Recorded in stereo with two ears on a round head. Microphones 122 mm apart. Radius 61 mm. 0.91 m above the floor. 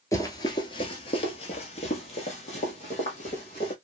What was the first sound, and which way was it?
Running footsteps, 25° left (ahead or behind).